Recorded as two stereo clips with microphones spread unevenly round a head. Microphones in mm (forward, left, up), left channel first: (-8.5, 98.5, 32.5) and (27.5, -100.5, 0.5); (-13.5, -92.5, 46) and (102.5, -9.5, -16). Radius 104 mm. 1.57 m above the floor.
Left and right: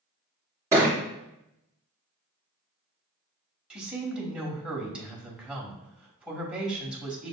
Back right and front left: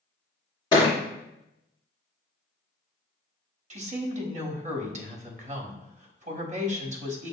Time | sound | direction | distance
0.7 | a thud | 160° right | 1.5 m
3.7 | a woman speaking | 5° left | 1.1 m